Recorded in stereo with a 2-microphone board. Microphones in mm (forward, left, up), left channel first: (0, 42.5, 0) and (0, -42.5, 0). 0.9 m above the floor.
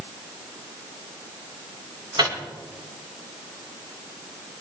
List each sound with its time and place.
2.2 s a microwave: 55° right (ahead or behind), 3 m